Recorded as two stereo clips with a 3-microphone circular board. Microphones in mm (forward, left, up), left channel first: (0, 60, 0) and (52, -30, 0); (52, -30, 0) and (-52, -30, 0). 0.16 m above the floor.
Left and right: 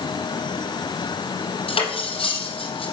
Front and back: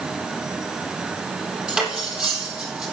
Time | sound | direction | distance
1.7 | cutlery clinking | 100° left | 3.5 m